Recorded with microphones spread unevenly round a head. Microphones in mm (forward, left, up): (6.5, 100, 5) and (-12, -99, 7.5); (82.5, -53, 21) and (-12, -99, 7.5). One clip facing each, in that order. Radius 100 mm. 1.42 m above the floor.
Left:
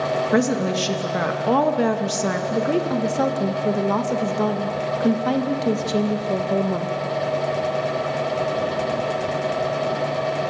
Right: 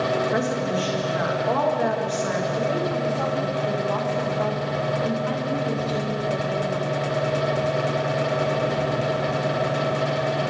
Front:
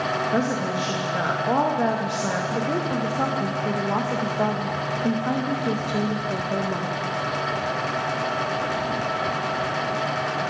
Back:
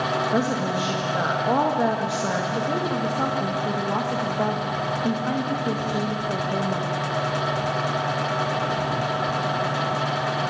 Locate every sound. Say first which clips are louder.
0.3 s a woman speaking: left 4 dB, even; 120° left, 1.9 m
2.5 s a woman speaking: left 3 dB, even; 110° left, 1.9 m